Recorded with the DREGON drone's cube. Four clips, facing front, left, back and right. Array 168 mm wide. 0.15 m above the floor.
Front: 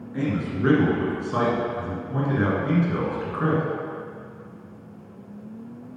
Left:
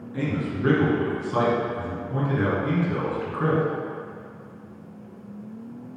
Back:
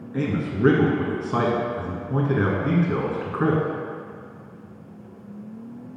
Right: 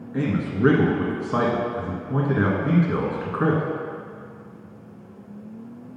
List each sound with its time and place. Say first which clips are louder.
0.1 s a man speaking: right 3 dB, back 1 dB; 120° right, 1.7 m